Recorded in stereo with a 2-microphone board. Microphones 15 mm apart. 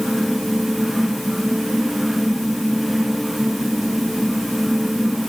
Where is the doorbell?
I don't hear a doorbell.